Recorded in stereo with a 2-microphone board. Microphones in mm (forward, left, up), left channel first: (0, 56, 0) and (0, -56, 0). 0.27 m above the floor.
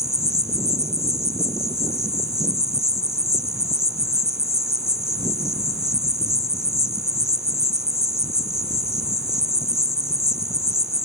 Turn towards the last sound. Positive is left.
turn(degrees=65)  # may be behind; listen again after turning